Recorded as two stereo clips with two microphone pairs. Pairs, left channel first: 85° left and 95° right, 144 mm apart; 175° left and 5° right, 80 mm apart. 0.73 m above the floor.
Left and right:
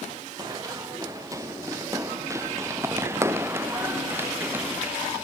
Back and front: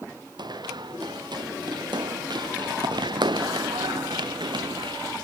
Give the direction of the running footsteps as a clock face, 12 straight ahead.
1 o'clock.